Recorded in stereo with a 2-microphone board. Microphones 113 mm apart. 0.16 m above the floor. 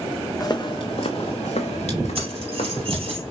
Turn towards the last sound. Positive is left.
turn(degrees=-55)  # may be behind; listen again after turning